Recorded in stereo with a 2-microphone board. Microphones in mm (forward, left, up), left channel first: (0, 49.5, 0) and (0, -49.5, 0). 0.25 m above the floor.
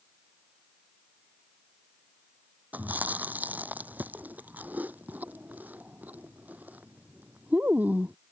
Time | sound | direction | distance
2.7 | chewing | 15° right (ahead or behind) | ?